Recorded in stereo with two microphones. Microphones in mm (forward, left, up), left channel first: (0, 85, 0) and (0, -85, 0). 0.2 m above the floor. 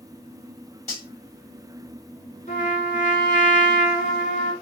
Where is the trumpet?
45° left (ahead or behind), 2.5 m.